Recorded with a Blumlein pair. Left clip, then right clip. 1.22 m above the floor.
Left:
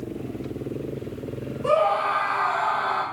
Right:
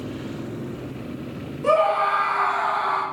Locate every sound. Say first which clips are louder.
1.6 s a scream: right 2 dB; 70° right, 1.0 m